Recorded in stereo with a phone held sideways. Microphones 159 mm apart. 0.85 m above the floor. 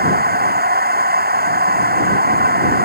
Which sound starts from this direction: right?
A machine running, at 0.0 s.